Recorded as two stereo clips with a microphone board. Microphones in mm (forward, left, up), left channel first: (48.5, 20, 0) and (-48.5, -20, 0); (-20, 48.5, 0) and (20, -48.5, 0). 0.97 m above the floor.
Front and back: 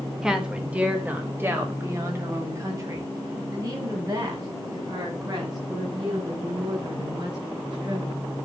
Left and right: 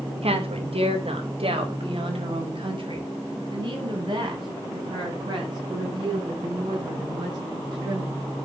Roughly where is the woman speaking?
Right.